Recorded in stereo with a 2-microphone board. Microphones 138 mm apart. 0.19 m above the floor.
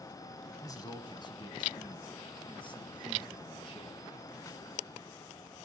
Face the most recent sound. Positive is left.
turn(degrees=35)  # may be behind; listen again after turning